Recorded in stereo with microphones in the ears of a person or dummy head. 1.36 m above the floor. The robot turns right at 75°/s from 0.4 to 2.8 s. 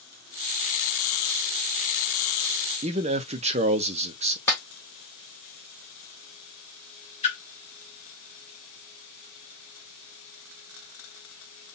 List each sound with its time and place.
2.8 s a man speaking: 30° right (ahead or behind), 0.5 m
4.5 s a clap: 15° left (ahead or behind), 1.4 m
7.2 s a splash: 35° left (ahead or behind), 2 m